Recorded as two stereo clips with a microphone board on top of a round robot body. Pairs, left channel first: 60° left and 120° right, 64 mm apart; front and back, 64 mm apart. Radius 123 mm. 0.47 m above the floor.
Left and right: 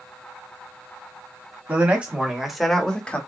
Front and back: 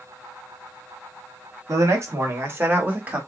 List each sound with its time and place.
1.7 s a man speaking: 175° right, 1.7 m; by 3.2 s 115° left, 1.5 m